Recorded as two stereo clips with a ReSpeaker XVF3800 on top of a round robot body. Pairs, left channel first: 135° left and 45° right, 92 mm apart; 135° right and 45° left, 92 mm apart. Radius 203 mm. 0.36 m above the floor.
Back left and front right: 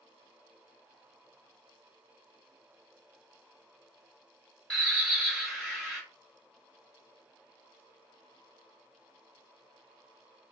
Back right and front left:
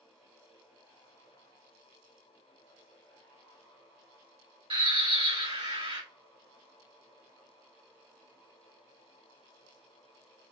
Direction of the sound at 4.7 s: 50° left.